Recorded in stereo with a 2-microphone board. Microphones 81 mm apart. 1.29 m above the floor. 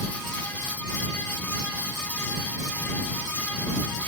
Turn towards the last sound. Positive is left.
No sound to turn to.